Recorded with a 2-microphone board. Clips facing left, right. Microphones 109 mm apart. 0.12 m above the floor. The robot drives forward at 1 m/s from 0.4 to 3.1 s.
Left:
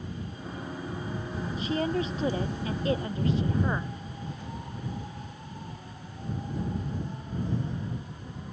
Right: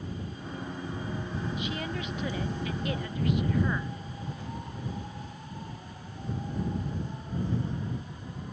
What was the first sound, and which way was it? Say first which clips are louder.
A woman speaking: left 6 dB; 35° left (ahead or behind).